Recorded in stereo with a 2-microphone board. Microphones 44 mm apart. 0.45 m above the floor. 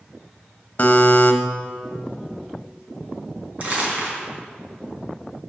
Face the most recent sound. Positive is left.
turn(degrees=-40)  # may be behind; listen again after turning